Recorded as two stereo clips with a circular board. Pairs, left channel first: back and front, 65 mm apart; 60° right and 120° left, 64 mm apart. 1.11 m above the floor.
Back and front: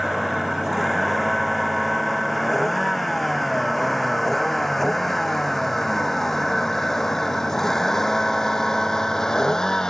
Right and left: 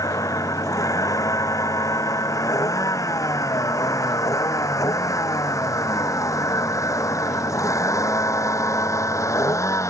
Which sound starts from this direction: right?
A vehicle, at 0.0 s.